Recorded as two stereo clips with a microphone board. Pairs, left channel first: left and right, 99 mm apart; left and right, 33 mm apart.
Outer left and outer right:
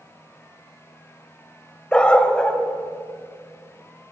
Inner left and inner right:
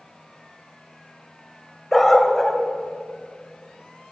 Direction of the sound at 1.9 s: 10° left (ahead or behind).